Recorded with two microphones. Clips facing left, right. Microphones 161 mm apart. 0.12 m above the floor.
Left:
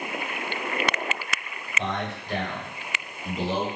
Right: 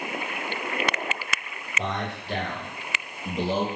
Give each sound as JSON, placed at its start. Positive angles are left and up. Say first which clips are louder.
{"t": 1.8, "sound": "a man speaking", "louder": "even", "side_deg": -40, "distance_m": 2.0}